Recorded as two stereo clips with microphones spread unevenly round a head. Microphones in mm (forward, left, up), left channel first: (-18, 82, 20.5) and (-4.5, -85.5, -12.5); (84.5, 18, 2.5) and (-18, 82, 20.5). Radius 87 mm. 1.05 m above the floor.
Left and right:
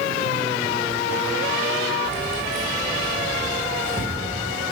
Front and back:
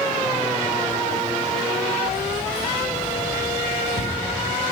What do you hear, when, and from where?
2.0 s keys jangling: 120° right, 3.5 m; by 4.2 s 175° right, 2.5 m